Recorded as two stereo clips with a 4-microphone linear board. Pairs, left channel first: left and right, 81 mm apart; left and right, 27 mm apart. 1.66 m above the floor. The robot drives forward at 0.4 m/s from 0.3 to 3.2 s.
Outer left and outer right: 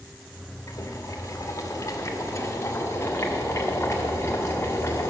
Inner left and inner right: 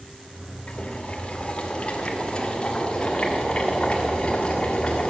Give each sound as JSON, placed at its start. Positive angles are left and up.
{"t": 0.7, "sound": "boiling", "side_deg": 40, "distance_m": 1.4}